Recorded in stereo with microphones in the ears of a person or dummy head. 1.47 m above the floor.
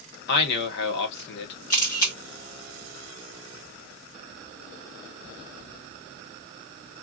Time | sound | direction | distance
0.3 | a man speaking | 55° left (ahead or behind) | 1.4 m
1.7 | a camera shutter | 20° left (ahead or behind) | 0.6 m